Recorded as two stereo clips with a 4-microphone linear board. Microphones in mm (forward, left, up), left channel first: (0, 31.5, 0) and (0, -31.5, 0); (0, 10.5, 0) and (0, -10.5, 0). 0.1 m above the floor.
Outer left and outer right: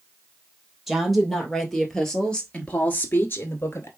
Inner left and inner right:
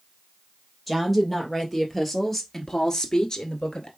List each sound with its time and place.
0.9 s a woman speaking: 5° right (ahead or behind), 2.5 m; by 3.9 s 45° left (ahead or behind), 1.4 m